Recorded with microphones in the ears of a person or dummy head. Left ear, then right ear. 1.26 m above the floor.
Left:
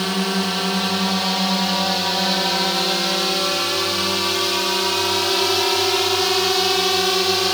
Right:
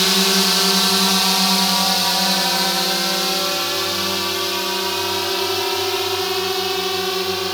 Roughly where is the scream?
No scream in this recording.